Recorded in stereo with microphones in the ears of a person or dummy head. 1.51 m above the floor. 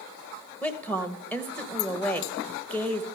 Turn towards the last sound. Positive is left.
turn(degrees=10)  # may be behind; listen again after turning